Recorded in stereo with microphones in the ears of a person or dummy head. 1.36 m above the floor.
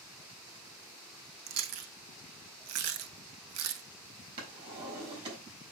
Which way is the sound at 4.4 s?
30° right (ahead or behind).